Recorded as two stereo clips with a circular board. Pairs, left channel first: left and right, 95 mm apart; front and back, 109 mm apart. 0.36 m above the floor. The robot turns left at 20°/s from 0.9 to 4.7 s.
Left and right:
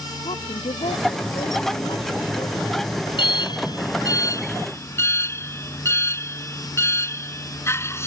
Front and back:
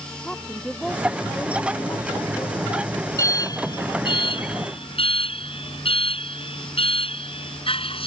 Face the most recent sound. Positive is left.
turn(degrees=30)